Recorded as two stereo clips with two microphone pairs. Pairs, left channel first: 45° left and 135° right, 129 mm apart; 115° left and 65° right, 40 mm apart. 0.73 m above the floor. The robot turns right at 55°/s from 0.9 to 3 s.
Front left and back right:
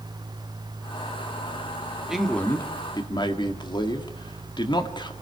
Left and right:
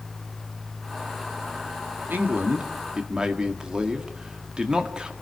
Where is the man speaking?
50° right, 1.8 m; by 5.1 s straight ahead, 1.8 m.